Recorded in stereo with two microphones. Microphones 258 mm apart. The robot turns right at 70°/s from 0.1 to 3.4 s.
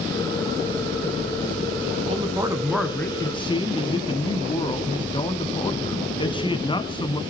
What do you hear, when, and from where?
2.1 s a man speaking: 50° right, 1.4 m; by 7.2 s 40° left, 1.4 m